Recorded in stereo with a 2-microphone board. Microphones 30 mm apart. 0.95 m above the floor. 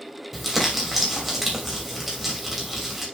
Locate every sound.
0.3 s crumpling: 5° right (ahead or behind), 3 m